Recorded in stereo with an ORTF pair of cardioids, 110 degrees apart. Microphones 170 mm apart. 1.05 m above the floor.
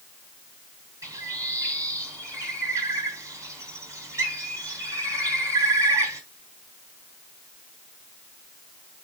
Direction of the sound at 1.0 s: 20° right.